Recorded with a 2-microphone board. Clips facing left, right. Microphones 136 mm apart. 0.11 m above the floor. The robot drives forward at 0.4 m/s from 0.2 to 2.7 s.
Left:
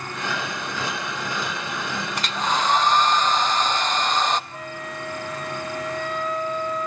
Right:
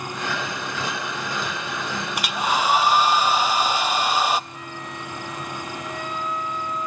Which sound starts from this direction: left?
A flute, at 4.5 s.